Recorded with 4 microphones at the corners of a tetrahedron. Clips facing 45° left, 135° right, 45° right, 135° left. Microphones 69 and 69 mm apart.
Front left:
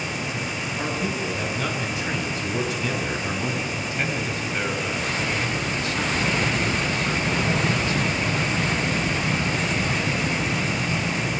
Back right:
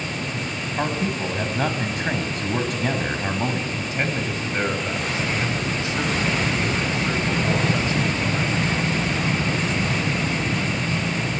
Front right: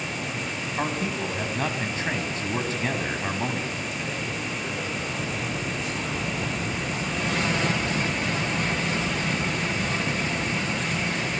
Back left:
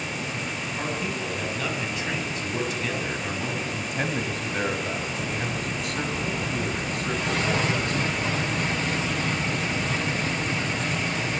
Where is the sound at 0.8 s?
100° right, 5.5 m.